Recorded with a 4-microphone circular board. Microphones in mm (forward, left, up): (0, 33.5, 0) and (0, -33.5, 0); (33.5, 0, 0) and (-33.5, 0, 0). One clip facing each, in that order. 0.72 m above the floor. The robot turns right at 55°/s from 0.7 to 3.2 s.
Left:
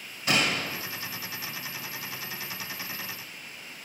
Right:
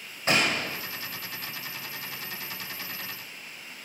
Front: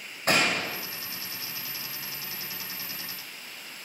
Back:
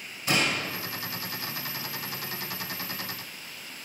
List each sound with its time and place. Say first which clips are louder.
0.3 s a gunshot: right 1 dB, front 2 dB; 35° right, 2 m; by 0.8 s 30° right, 2 m